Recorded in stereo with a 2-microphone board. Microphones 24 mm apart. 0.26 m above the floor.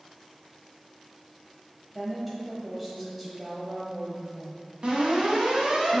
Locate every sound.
1.9 s a woman speaking: 5° right (ahead or behind), 1.1 m
4.8 s an alarm: 50° right (ahead or behind), 1.9 m